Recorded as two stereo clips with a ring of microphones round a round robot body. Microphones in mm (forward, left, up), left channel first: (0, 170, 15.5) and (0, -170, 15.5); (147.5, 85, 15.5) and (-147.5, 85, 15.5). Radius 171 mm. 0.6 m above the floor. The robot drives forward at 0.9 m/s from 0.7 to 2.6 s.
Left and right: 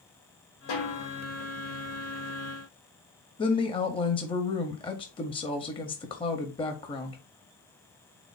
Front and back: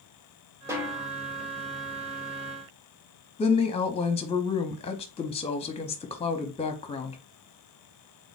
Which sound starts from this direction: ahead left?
A woman speaking, at 3.4 s.